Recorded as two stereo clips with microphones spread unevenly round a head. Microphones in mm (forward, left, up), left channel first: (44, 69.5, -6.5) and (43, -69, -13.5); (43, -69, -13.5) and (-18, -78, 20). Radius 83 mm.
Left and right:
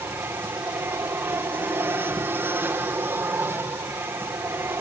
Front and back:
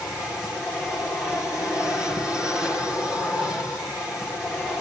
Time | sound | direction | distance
0.0 | an aircraft | 40° right | ?